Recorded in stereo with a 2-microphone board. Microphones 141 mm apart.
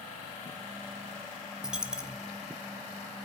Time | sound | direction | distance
1.6 | a dropped coin | 5° right (ahead or behind) | 0.9 m